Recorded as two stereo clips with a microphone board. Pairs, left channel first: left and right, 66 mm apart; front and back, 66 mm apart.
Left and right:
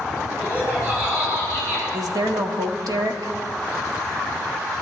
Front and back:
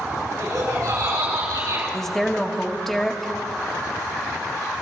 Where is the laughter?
150° right, 7 m; by 1.8 s 145° right, 8 m.